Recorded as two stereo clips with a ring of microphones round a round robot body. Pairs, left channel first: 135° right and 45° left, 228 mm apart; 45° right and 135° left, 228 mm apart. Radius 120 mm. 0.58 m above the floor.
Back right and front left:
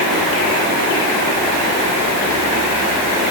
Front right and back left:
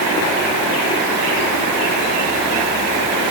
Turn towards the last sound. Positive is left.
No sound to turn to.